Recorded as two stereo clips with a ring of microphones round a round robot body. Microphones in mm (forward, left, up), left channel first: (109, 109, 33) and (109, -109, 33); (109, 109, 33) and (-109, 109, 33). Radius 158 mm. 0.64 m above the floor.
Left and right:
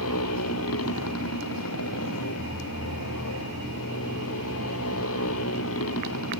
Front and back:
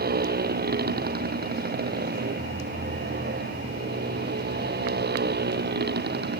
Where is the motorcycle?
135° left; by 6.4 s 140° left.